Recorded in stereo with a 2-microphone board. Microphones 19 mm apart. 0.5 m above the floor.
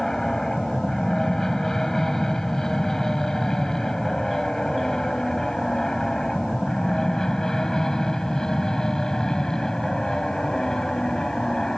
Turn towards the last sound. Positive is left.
turn(degrees=40)  # may be behind; listen again after turning